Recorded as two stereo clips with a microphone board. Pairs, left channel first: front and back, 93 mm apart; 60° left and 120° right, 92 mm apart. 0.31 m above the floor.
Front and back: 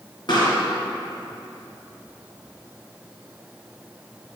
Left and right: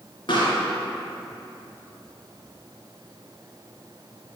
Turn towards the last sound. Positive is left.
turn(degrees=30)